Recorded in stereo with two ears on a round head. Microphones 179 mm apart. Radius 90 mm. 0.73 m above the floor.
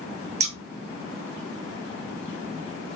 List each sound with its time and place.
0.4 s scissors: 30° right (ahead or behind), 0.8 m